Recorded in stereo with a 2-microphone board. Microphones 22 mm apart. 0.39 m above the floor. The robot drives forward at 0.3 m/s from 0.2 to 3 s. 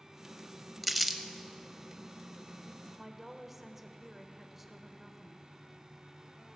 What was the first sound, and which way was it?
Crumpling, 5° right (ahead or behind).